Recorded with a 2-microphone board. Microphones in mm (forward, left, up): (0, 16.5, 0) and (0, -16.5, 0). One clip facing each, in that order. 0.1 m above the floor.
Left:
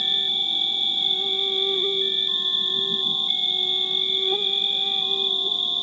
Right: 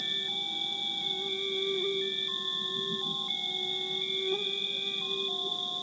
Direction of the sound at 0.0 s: 55° left (ahead or behind).